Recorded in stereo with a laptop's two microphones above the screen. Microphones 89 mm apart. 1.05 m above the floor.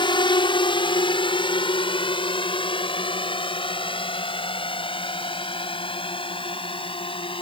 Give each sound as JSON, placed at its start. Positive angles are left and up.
{"t": 0.0, "sound": "a drone", "side_deg": 65}